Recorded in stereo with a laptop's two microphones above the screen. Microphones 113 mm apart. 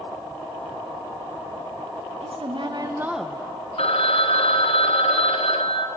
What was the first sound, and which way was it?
A woman speaking, 65° right (ahead or behind).